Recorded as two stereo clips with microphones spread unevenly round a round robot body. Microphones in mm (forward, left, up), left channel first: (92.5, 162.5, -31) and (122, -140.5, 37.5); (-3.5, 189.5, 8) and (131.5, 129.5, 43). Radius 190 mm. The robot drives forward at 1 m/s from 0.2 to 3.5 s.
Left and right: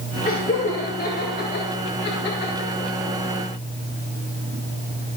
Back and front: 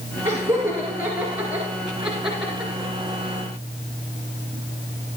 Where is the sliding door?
I don't hear a sliding door.